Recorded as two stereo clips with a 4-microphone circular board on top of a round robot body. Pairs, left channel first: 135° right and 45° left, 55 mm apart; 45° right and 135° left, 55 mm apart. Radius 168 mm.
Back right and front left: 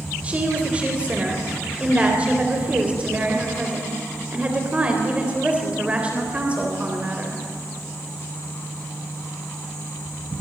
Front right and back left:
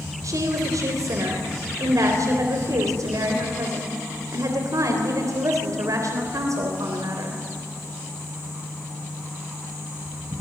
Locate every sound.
0.2 s a woman speaking: 110° left, 3.5 m